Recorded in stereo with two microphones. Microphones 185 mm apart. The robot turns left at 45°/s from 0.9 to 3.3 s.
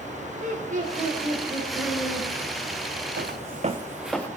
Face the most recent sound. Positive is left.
turn(degrees=10)  # may be behind; listen again after turning